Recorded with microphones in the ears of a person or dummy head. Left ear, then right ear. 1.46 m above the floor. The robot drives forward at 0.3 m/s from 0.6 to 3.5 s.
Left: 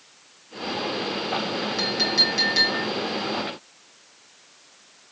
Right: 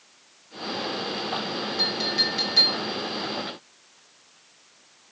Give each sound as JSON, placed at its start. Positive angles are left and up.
{"t": 1.8, "sound": "a clink", "side_deg": 75, "distance_m": 2.0}